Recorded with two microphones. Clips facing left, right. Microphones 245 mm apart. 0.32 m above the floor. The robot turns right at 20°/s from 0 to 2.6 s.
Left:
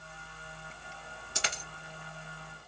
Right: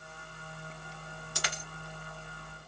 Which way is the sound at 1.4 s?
20° left (ahead or behind).